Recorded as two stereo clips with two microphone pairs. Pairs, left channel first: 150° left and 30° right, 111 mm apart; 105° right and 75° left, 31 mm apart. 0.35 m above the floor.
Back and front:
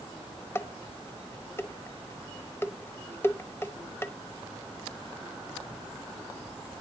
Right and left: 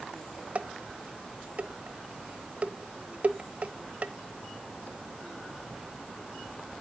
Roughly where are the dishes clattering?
Left.